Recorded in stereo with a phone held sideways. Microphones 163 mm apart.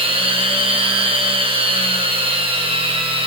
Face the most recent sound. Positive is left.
turn(degrees=-35)  # may be behind; listen again after turning